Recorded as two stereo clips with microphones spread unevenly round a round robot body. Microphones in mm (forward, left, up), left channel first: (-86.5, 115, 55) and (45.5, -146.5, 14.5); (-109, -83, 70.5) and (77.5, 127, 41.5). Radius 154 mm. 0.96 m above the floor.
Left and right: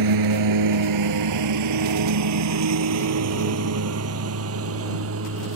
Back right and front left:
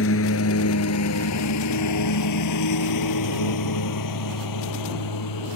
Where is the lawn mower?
80° right; by 5.5 s 110° right.